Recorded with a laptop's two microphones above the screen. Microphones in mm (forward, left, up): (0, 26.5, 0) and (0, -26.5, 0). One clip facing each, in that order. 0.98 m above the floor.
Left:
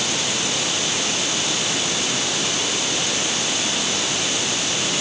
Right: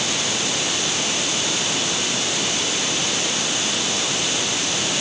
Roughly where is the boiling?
No boiling in this recording.